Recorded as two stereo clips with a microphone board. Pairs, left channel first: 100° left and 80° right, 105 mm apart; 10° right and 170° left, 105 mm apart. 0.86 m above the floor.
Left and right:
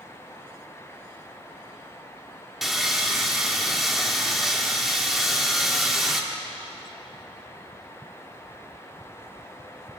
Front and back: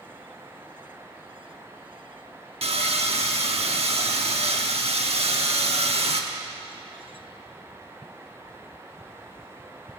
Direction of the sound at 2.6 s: 165° right.